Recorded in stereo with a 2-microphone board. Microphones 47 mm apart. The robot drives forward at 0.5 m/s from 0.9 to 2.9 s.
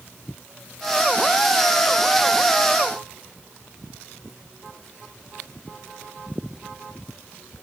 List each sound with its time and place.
Only background noise.